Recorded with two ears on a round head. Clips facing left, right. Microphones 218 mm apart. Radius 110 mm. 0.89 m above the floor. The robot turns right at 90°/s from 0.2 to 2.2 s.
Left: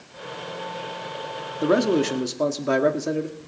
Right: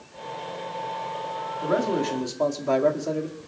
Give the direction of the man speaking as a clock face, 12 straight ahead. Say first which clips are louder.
Left 5 dB; 9 o'clock.